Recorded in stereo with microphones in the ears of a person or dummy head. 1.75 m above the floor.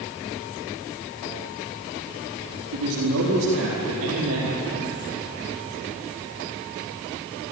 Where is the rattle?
I don't hear a rattle.